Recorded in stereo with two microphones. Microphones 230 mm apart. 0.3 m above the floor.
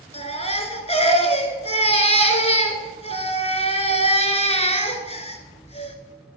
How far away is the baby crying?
About 1.2 m.